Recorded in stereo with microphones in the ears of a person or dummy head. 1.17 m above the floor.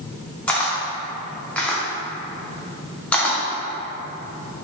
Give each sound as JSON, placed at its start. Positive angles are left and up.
{"t": 0.5, "sound": "a camera shutter", "side_deg": 10, "distance_m": 0.5}